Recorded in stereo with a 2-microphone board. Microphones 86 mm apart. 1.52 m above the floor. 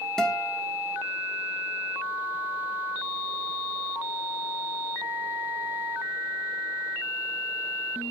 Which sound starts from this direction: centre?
A guitar, at 0.2 s.